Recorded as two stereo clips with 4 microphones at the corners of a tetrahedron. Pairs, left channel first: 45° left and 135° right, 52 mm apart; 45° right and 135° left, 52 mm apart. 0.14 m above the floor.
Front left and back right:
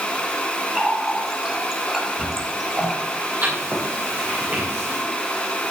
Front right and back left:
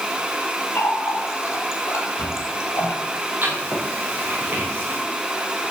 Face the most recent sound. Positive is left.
turn(degrees=-175)